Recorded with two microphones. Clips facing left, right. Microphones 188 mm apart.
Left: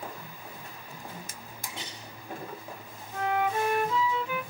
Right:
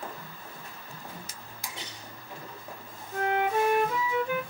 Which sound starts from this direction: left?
A drawer, at 1.3 s.